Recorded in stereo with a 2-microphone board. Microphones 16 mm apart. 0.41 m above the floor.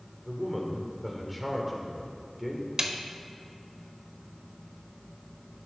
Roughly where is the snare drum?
Right.